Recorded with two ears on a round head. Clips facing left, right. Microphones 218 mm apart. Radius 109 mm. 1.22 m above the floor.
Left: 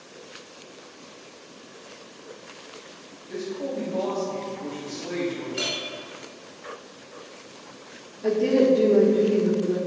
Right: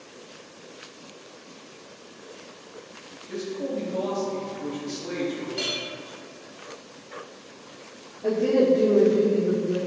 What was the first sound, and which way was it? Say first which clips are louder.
A man speaking: even; 15° right (ahead or behind).